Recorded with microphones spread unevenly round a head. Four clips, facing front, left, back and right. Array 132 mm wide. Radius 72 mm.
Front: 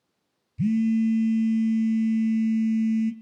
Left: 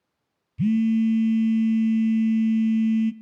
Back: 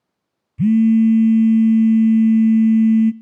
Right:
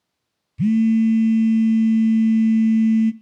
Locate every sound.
0.6 s a phone buzzing: 160° right, 0.5 m